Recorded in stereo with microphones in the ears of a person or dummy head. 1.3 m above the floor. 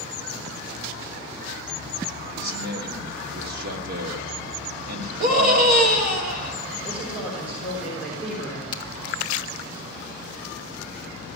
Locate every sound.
2.4 s a man speaking: 60° right (ahead or behind), 1.6 m
5.2 s a scream: 50° right (ahead or behind), 2 m
6.8 s a man speaking: 5° right (ahead or behind), 3.5 m
8.7 s a crack: 25° left (ahead or behind), 1.0 m